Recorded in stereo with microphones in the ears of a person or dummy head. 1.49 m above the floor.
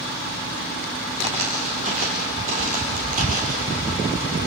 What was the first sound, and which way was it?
Footsteps, 30° right (ahead or behind).